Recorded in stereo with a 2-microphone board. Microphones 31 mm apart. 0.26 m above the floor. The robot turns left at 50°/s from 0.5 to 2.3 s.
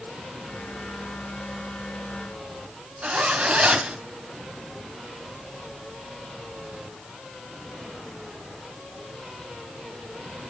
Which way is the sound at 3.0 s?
40° right (ahead or behind).